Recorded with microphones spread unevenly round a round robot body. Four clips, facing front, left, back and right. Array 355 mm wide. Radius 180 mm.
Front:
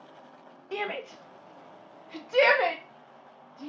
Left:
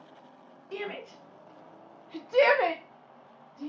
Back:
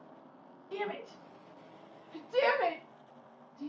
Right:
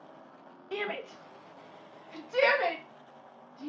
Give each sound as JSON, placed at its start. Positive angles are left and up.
{"t": 0.7, "sound": "a shout", "azimuth_deg": -25, "distance_m": 1.2}